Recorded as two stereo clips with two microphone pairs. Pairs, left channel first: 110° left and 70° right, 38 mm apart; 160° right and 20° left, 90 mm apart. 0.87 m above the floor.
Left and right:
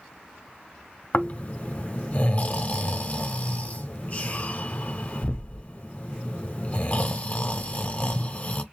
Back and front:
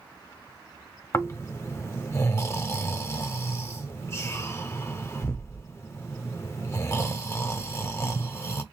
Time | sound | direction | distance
1.1 | snoring | 150° left | 0.7 m